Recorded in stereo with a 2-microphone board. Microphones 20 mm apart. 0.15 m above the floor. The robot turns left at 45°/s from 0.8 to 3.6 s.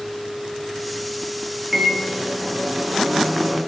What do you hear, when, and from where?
1.7 s a microwave: 15° right (ahead or behind), 0.8 m